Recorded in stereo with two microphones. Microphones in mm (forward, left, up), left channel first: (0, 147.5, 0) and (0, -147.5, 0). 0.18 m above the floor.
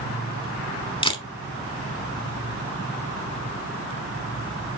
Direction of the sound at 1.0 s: 15° left (ahead or behind).